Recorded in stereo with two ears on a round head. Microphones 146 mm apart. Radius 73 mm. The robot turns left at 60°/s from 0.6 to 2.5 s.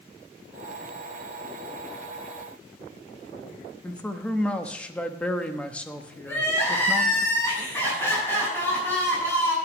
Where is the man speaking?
10° left (ahead or behind), 0.8 m.